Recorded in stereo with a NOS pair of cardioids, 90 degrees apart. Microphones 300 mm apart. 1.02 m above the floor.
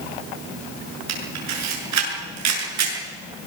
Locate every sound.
1.1 s a camera shutter: 65° right, 7 m